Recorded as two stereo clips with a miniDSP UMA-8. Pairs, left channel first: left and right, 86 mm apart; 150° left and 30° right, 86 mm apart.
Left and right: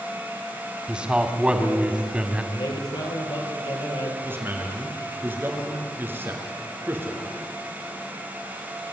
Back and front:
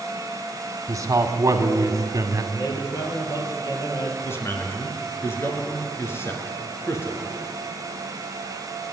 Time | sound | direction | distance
0.9 | a man speaking | 20° right | 1.8 m
2.5 | a man speaking | 100° left | 5 m
4.2 | a man speaking | 155° right | 4 m